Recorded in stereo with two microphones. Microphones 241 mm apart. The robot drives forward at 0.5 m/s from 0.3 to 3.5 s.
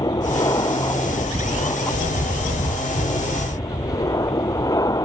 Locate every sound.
0.0 s an aircraft: 15° left (ahead or behind)